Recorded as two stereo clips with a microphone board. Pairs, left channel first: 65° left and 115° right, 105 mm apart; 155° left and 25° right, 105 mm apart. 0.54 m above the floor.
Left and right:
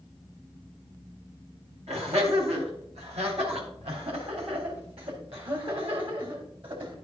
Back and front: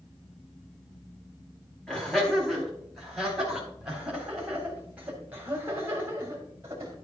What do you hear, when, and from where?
1.9 s laughter: 120° right, 4.5 m; by 6.9 s 85° right, 3.5 m